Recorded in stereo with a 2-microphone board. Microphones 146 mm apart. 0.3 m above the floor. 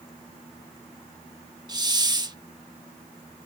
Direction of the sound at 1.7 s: 30° right (ahead or behind).